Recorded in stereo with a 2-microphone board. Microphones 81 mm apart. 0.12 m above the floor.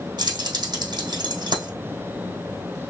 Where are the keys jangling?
60° right (ahead or behind), 3 m.